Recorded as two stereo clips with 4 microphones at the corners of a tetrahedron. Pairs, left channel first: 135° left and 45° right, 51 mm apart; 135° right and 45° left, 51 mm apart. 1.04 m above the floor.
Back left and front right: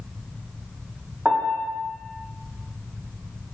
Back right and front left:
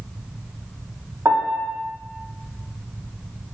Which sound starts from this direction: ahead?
A piano, at 1.2 s.